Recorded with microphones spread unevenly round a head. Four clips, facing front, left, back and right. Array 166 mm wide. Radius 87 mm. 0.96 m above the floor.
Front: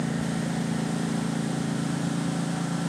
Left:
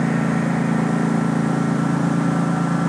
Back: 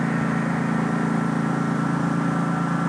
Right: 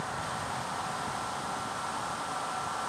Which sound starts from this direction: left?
A lawn mower, at 0.0 s.